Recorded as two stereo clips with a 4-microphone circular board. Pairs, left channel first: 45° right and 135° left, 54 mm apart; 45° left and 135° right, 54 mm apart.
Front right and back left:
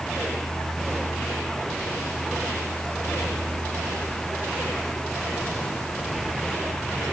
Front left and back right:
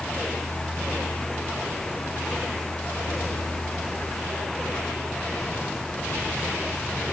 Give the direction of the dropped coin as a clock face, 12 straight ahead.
No dropped coin in this recording.